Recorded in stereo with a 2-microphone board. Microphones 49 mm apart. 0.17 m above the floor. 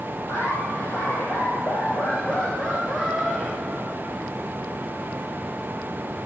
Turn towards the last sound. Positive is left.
turn(degrees=-15)  # may be behind; listen again after turning